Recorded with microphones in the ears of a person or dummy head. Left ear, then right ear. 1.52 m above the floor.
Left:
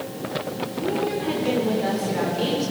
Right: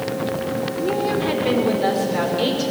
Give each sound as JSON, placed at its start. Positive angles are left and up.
{"t": 0.8, "sound": "a woman speaking", "side_deg": -30, "distance_m": 5.0}